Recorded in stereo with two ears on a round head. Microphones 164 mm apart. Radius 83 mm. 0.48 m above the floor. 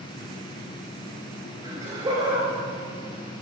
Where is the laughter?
30° right (ahead or behind), 3 m.